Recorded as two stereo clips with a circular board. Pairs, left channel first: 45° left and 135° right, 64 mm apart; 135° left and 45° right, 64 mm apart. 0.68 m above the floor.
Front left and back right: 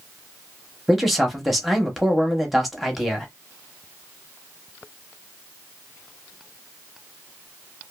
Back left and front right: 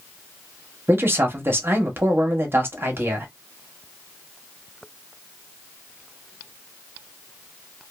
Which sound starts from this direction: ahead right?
A man speaking, at 0.9 s.